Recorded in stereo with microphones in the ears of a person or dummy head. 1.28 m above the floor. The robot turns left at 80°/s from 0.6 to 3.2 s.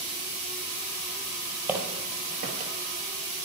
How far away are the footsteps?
About 1.9 m.